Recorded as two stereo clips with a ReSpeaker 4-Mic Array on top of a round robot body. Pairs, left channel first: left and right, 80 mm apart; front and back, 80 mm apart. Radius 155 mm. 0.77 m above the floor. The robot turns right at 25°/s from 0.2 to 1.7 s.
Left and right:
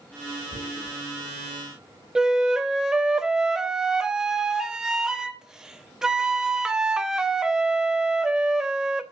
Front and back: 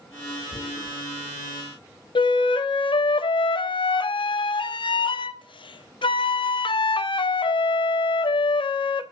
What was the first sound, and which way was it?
Tearing paper, 95° right.